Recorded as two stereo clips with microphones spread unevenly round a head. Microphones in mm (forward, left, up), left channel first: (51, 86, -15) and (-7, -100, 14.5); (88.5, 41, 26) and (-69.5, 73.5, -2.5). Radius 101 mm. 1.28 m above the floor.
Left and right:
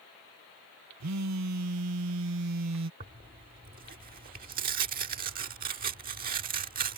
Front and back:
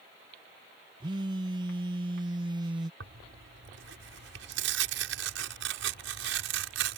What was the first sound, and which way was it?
A phone buzzing, 125° right.